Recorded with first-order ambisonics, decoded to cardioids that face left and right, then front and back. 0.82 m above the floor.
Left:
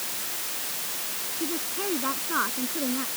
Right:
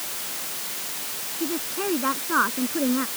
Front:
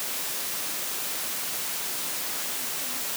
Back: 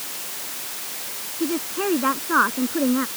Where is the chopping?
I don't hear chopping.